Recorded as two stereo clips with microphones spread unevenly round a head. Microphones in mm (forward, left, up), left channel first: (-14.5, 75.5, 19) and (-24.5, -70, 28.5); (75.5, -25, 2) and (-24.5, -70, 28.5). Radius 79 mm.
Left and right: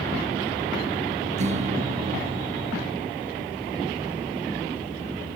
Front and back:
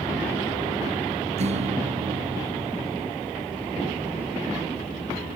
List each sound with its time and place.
1.4 s a guitar: 135° right